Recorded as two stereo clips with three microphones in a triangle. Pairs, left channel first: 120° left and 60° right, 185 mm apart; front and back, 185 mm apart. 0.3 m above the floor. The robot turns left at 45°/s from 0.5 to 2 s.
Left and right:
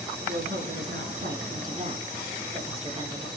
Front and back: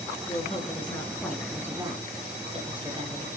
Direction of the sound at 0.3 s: 50° right.